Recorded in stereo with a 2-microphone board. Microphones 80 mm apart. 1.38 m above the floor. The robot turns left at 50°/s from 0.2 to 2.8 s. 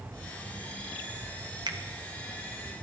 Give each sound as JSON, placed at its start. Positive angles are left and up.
{"t": 1.7, "sound": "a finger snap", "side_deg": -60, "distance_m": 0.9}